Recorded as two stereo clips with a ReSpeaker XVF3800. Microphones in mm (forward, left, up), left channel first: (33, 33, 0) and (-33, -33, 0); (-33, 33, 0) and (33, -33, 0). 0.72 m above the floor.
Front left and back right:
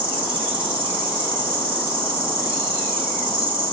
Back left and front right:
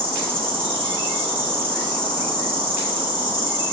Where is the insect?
65° right, 1.0 m.